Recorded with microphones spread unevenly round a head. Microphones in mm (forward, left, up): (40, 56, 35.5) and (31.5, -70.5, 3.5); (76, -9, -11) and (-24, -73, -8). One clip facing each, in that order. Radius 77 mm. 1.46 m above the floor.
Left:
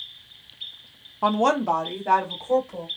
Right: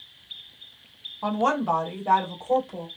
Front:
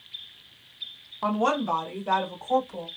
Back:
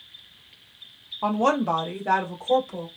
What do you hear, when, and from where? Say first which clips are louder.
1.2 s a woman speaking: left 3 dB, back 3 dB; 130° left, 0.5 m; by 2.9 s 175° right, 1.7 m